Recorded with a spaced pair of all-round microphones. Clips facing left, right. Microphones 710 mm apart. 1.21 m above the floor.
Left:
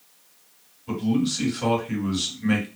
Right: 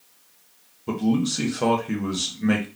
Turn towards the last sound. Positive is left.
turn(degrees=-70)  # may be behind; listen again after turning